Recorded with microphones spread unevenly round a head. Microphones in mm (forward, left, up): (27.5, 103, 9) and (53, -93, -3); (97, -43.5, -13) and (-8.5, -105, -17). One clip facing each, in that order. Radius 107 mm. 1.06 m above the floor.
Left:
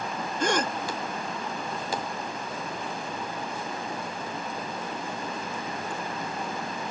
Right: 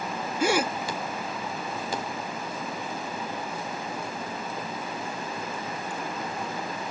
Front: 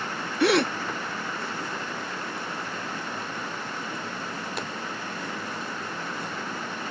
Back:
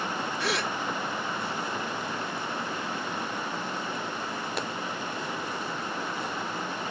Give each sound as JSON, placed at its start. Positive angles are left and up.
{"t": 0.4, "sound": "a gasp", "azimuth_deg": 0}